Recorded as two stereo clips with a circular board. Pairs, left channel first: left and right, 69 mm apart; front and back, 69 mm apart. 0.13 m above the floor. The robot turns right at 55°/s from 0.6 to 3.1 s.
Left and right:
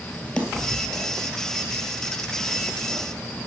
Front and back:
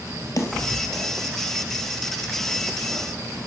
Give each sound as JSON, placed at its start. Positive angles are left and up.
{"t": 0.4, "sound": "a snare drum", "azimuth_deg": 15, "distance_m": 2.5}